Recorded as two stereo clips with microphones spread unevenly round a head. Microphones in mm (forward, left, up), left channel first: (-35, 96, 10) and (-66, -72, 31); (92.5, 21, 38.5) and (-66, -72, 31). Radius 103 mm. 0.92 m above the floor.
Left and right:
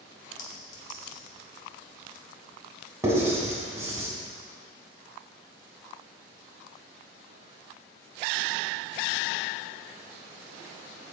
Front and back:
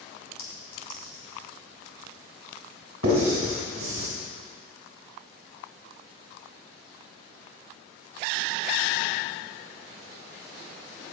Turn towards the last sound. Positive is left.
turn(degrees=-175)